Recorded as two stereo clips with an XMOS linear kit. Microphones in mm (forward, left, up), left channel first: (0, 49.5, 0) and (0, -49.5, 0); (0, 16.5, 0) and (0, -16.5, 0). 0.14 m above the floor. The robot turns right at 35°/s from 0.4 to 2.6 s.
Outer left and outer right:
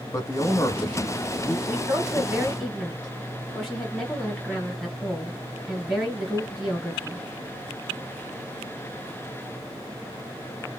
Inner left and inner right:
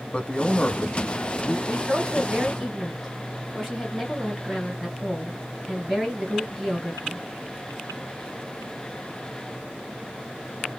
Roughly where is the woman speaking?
Ahead right.